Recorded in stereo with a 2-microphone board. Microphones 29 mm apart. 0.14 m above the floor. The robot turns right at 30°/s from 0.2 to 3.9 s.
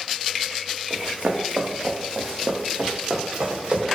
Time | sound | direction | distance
0.9 | running footsteps | 65° right (ahead or behind) | 0.8 m